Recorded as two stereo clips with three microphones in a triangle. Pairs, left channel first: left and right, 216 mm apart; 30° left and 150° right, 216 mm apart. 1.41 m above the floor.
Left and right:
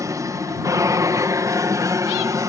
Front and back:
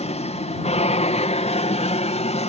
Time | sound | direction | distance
0.0 | an aircraft | 20° right | ?